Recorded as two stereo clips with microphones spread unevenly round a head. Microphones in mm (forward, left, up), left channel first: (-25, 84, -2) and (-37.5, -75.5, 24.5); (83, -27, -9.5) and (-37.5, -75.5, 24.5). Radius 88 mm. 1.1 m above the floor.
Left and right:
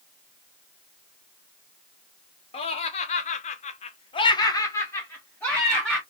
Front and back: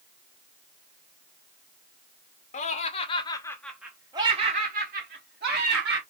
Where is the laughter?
35° left, 1.0 m; by 6.0 s 170° left, 1.7 m.